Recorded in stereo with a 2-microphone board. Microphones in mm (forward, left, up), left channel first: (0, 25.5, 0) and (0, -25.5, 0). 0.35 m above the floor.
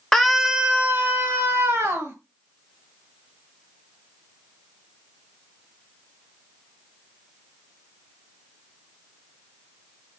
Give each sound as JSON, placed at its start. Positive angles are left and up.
{"t": 0.1, "sound": "a scream", "side_deg": 5, "distance_m": 1.0}